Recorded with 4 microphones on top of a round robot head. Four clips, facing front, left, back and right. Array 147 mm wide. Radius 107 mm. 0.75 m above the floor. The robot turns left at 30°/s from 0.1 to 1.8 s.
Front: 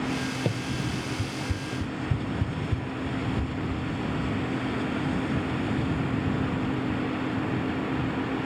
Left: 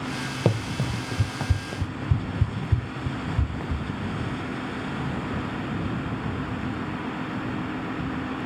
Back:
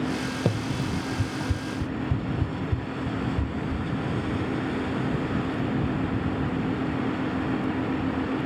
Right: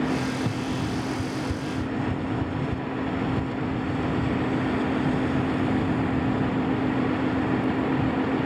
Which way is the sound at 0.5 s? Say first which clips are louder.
Left 1 dB, back 2 dB; 100° left.